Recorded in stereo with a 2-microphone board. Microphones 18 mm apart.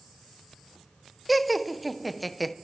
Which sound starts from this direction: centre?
Laughter, at 1.3 s.